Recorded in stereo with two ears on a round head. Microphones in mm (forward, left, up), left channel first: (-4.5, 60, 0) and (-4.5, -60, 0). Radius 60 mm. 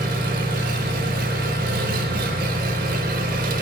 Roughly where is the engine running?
Right.